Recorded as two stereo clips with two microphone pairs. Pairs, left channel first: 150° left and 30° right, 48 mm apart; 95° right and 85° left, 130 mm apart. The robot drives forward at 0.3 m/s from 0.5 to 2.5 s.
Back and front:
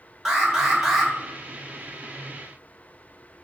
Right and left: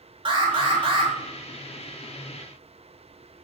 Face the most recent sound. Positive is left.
turn(degrees=95)